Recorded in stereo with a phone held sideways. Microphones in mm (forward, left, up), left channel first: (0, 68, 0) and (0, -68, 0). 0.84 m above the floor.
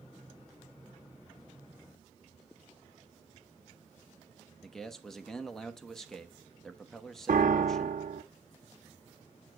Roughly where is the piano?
Right.